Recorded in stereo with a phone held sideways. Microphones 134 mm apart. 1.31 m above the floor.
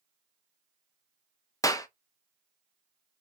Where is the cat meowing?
No cat meowing in this recording.